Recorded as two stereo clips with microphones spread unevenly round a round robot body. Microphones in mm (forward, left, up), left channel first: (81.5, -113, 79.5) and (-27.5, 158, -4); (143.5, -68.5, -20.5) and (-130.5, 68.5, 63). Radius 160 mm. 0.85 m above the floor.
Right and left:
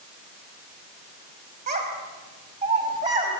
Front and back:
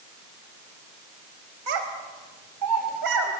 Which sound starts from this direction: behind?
A child speaking, at 1.7 s.